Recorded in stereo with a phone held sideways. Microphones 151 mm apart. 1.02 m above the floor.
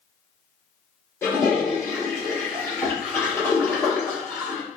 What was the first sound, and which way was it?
A toilet flushing, 15° left (ahead or behind).